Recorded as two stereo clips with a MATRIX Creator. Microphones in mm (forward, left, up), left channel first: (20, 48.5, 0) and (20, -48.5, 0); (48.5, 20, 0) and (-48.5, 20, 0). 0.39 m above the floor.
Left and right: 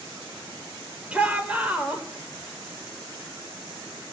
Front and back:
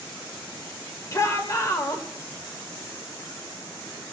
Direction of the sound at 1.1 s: 25° right.